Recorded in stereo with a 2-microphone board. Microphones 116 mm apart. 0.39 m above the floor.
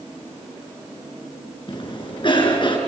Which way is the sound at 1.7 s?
45° left (ahead or behind).